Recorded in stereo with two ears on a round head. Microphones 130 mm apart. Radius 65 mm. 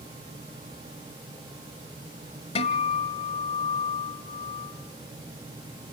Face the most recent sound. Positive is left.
turn(degrees=45)  # may be behind; listen again after turning